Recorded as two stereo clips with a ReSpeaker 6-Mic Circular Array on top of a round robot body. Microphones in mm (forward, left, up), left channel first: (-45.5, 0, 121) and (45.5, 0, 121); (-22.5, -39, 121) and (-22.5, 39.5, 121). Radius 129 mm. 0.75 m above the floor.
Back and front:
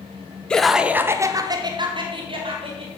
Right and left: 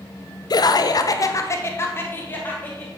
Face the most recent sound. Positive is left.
turn(degrees=-20)